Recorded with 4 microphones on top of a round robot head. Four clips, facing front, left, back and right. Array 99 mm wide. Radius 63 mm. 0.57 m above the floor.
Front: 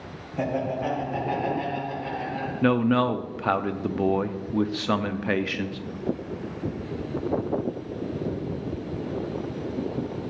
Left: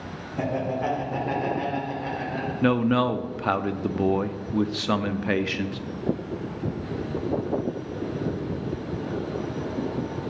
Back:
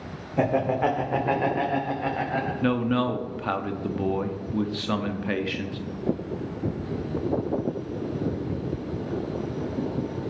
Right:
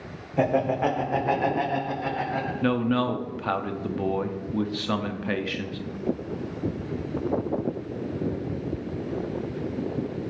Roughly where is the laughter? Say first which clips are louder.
Right 4 dB, back 4 dB; behind right.